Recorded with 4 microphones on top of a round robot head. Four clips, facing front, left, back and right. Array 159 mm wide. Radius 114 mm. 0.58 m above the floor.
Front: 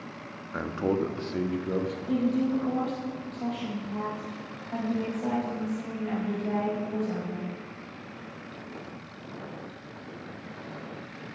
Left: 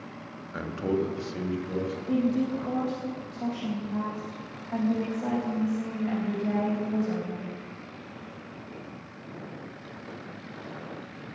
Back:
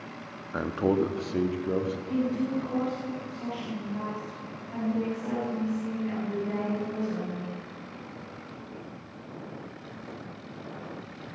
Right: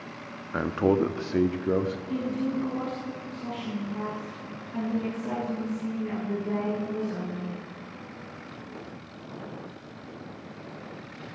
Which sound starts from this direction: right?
A man speaking, at 0.5 s.